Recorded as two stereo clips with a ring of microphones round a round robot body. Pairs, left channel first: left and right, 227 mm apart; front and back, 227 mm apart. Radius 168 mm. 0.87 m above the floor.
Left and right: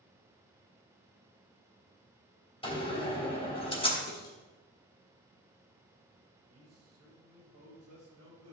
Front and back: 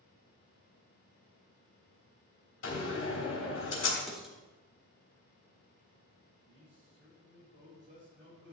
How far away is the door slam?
About 3.5 m.